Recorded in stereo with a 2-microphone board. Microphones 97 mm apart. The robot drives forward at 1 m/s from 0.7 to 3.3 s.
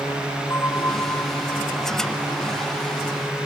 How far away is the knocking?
I don't hear knocking.